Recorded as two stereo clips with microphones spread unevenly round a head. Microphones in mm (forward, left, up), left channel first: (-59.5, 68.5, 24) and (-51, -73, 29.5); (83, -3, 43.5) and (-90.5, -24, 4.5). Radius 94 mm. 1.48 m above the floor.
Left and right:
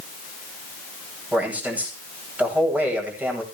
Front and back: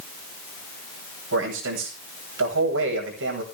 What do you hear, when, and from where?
1.3 s a man speaking: 165° right, 9 m